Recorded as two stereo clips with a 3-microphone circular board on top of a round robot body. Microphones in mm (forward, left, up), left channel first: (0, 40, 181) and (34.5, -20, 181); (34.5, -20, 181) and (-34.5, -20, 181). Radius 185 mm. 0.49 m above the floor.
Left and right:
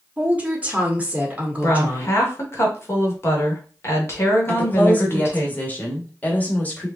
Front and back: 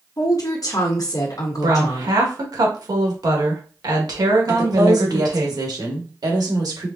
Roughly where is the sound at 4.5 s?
Behind.